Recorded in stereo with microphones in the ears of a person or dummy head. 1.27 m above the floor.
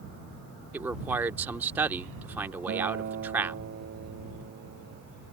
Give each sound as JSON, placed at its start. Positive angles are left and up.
{"t": 0.7, "sound": "a man speaking", "side_deg": -15}
{"t": 2.7, "sound": "a guitar", "side_deg": -50}